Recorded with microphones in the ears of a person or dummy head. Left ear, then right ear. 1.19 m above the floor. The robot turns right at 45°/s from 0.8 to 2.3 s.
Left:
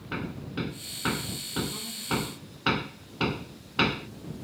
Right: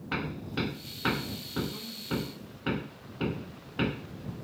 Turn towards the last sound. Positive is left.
turn(degrees=45)  # may be behind; listen again after turning